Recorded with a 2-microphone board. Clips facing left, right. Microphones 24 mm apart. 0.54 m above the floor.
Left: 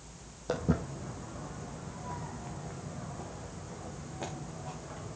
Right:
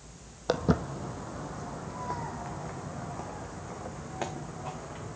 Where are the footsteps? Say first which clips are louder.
Right 4 dB; 55° right (ahead or behind), 1.3 m; by 5.2 s 65° right (ahead or behind), 3 m.